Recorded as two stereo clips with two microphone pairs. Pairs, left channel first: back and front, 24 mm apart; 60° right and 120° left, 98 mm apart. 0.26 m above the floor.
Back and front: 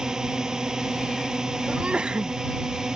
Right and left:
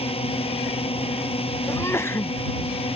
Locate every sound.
0.0 s a drone: 65° right
1.7 s a sneeze: 10° right